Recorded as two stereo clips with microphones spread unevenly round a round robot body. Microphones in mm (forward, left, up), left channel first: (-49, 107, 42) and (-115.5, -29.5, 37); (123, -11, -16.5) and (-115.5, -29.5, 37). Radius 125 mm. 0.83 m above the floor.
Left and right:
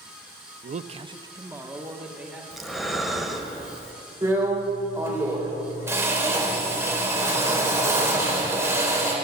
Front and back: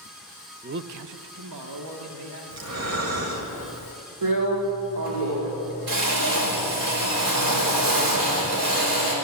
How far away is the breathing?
About 1.8 m.